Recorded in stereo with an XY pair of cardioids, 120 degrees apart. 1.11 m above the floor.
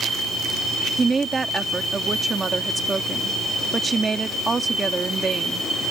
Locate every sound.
1.0 s a woman speaking: 25° right